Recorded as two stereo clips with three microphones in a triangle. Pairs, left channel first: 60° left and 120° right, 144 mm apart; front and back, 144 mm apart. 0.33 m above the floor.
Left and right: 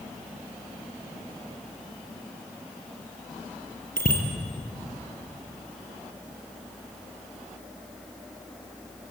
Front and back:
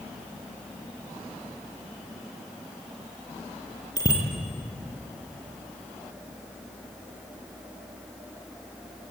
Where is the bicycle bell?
65° left, 5 m.